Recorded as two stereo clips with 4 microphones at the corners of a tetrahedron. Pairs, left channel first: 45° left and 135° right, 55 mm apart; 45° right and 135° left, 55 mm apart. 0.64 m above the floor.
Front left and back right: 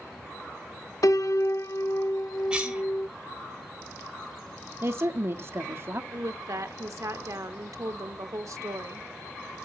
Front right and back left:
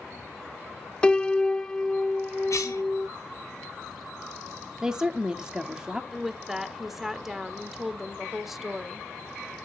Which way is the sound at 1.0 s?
25° left.